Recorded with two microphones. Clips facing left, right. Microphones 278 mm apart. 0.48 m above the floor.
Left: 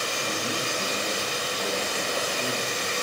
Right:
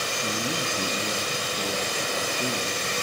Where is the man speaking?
45° right (ahead or behind), 3.5 m; by 2.8 s 55° right (ahead or behind), 5 m.